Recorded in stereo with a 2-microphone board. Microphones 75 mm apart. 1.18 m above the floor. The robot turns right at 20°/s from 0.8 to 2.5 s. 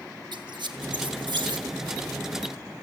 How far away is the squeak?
About 1.3 m.